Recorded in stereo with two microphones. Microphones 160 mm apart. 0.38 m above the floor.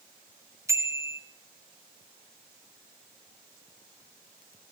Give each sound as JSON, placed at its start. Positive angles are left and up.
{"t": 0.7, "sound": "a bicycle bell", "side_deg": -15, "distance_m": 3.0}